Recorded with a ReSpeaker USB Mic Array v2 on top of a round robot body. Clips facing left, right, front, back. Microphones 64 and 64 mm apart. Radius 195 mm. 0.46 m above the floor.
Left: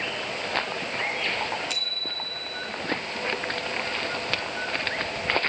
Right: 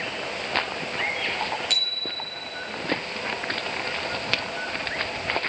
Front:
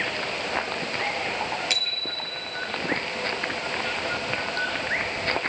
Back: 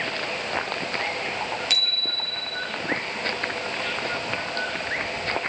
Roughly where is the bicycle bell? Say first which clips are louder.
Right 2 dB, back 1 dB; ahead right.